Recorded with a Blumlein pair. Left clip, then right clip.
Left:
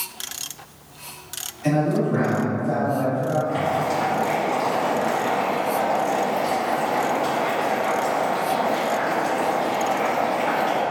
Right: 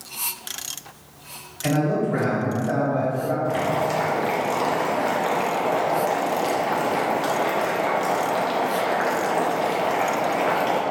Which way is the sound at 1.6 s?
60° right.